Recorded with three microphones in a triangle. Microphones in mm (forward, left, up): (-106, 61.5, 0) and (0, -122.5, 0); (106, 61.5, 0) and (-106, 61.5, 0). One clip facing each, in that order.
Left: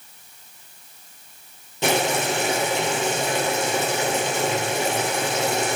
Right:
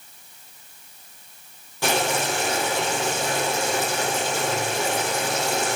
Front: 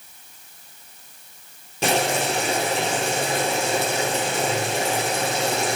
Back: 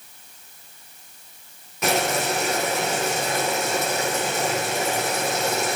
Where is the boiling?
55° left, 3 m.